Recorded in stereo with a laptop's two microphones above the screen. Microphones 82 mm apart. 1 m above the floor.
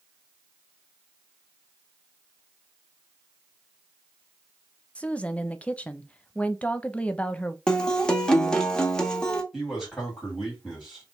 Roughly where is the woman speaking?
Centre.